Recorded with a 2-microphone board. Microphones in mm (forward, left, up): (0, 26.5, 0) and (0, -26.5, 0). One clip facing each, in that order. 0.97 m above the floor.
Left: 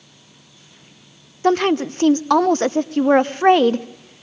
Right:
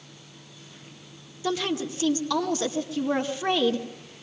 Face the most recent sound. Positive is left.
turn(degrees=45)  # may be behind; listen again after turning